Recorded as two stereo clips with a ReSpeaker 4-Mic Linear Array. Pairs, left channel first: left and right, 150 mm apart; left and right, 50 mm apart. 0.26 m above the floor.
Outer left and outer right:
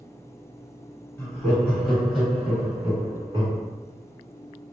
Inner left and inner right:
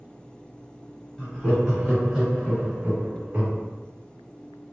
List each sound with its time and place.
1.2 s laughter: 15° left (ahead or behind), 1.5 m; by 3.6 s 30° right (ahead or behind), 1.2 m